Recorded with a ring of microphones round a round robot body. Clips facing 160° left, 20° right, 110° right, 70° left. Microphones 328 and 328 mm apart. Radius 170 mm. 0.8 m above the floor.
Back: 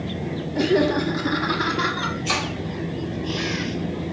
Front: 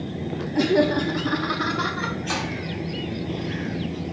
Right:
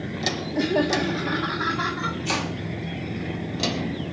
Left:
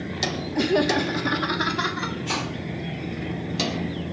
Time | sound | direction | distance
0.6 | laughter | 35° left | 0.7 m
2.2 | chopping | 160° right | 2 m